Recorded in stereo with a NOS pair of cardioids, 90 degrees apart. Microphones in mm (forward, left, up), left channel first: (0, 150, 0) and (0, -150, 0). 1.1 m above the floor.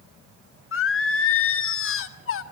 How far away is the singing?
About 1.5 m.